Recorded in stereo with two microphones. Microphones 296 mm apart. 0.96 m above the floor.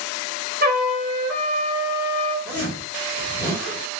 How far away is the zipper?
About 1.6 m.